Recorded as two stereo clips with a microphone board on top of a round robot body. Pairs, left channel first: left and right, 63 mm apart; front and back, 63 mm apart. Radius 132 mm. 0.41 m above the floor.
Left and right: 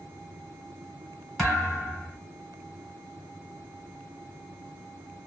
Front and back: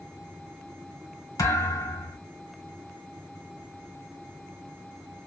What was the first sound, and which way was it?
A thud, 10° left.